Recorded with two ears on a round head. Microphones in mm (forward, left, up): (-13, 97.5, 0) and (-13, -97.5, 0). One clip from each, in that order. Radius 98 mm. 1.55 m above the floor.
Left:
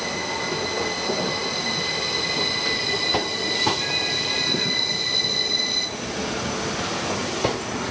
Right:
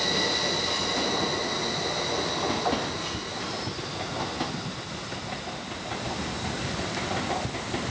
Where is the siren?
No siren in this recording.